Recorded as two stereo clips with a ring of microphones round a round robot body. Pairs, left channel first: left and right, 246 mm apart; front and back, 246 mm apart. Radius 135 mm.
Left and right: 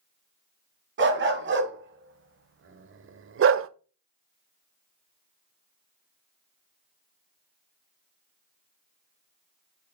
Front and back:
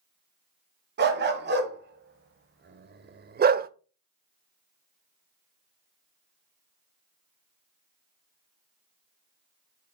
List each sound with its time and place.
1.0 s a dog barking: 135° right, 1.9 m; by 3.7 s 125° right, 0.5 m